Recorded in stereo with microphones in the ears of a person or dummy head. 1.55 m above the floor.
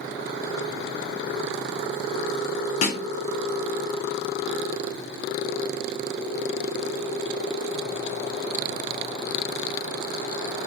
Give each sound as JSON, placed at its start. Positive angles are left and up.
{"t": 2.8, "sound": "a snare drum", "side_deg": 45, "distance_m": 0.7}